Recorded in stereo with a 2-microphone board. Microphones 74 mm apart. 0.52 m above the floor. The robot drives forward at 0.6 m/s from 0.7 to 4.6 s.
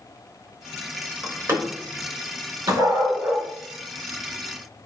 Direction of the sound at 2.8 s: 50° right (ahead or behind).